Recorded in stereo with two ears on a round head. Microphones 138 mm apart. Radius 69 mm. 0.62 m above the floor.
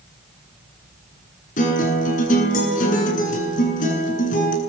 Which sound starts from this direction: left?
A guitar, at 1.6 s.